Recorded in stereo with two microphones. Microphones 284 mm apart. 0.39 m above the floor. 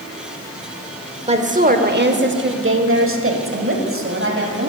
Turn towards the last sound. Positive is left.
turn(degrees=-50)  # may be behind; listen again after turning